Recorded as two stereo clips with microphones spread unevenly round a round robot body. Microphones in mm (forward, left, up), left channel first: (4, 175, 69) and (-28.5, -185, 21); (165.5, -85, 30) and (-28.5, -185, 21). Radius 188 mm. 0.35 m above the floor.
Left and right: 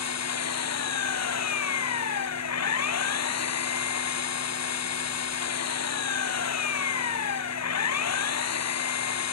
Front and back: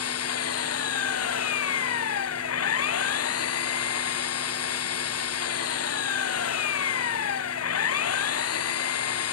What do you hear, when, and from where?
0.0 s an engine running: 35° left